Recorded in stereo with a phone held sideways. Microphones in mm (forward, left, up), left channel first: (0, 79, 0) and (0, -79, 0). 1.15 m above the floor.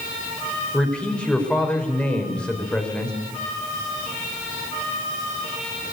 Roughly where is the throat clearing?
I don't hear throat clearing.